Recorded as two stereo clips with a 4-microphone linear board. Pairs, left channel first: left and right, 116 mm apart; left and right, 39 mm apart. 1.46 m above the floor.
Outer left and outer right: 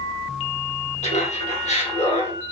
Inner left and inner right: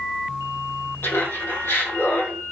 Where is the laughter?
80° left, 1.7 m; by 2.4 s 65° left (ahead or behind), 2 m.